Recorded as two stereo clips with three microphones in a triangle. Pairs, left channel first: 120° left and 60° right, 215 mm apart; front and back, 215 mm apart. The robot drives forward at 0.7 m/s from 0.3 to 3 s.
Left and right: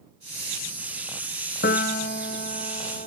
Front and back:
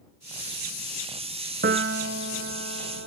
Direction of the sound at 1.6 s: 150° left.